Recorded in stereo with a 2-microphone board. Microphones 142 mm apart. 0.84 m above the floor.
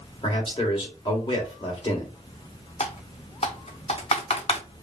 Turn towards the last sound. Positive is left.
turn(degrees=45)  # may be behind; listen again after turning